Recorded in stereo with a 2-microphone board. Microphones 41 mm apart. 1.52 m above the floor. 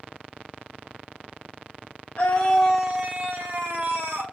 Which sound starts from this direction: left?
A scream, at 2.2 s.